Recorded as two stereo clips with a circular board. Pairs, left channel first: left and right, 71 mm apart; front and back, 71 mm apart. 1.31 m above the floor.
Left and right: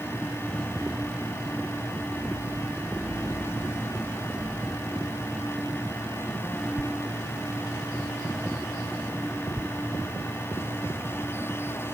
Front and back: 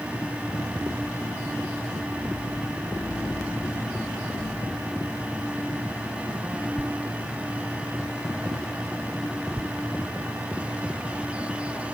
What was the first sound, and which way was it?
Only background noise.